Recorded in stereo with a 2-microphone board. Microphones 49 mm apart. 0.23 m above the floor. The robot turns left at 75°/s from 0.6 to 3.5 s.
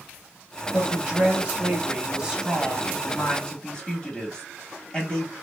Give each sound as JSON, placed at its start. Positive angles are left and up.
{"t": 0.7, "sound": "a woman speaking", "side_deg": -10, "distance_m": 1.0}